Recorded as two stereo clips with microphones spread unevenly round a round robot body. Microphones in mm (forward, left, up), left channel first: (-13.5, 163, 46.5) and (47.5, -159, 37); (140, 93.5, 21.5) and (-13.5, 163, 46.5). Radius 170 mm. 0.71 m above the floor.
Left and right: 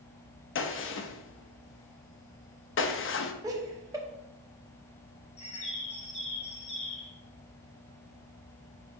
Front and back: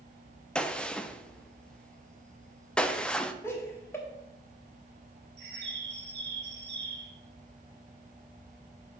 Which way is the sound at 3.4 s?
20° right.